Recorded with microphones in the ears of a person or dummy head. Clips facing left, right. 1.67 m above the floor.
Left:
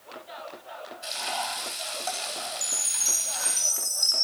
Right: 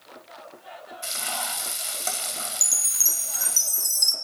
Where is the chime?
85° right, 1.6 m.